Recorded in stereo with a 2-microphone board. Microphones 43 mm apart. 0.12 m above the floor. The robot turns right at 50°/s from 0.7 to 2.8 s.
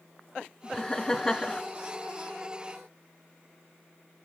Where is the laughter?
10° left (ahead or behind), 1.1 m; by 1.6 s 20° left (ahead or behind), 1.1 m.